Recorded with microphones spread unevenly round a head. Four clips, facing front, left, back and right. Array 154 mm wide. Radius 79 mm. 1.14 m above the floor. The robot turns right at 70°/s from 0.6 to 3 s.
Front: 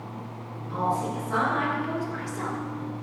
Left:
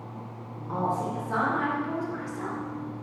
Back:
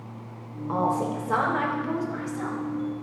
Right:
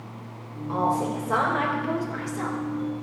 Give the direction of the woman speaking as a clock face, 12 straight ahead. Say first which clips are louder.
Right 4 dB, back 2 dB; 6 o'clock.